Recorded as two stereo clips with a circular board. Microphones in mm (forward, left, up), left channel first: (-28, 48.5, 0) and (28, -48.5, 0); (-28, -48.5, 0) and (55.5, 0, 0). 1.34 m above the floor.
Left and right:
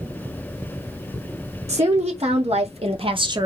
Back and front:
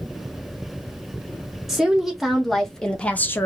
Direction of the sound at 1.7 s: 55° right.